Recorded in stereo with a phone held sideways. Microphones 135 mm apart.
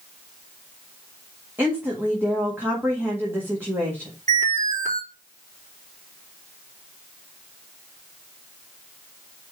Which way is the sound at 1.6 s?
15° right (ahead or behind).